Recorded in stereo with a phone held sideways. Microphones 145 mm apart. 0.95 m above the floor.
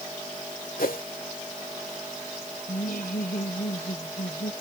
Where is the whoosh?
80° left.